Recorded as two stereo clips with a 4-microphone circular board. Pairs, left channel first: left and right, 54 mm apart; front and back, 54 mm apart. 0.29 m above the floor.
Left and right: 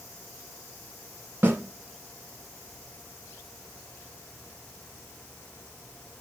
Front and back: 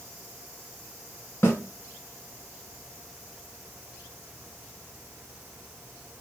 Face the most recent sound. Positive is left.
turn(degrees=-45)